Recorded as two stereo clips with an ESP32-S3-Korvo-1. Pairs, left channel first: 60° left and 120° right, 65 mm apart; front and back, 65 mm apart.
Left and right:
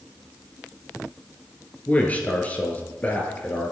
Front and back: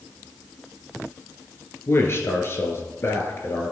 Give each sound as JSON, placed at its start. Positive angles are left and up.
{"t": 1.9, "sound": "a man speaking", "azimuth_deg": 10, "distance_m": 1.5}